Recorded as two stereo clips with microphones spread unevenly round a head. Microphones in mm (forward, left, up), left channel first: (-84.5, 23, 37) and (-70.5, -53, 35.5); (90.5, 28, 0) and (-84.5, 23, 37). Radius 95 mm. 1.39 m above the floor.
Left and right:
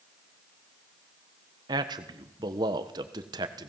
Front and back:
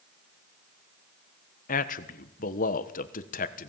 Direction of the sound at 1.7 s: 35° right.